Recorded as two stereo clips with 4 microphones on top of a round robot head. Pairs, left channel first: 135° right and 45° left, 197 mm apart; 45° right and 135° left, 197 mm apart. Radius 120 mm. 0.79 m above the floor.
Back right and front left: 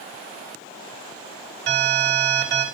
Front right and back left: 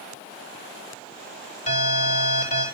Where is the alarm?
10° left, 4 m.